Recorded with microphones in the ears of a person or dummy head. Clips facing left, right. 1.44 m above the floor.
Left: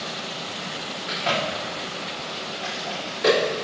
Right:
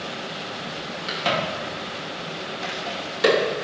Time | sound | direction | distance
1.1 | a crack | 90° right | 2 m